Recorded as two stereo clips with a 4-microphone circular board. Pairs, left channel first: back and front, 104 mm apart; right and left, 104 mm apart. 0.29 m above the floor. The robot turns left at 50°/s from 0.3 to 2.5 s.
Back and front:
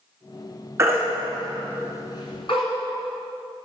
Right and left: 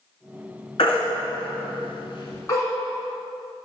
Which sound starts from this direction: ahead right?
A baby crying, at 0.8 s.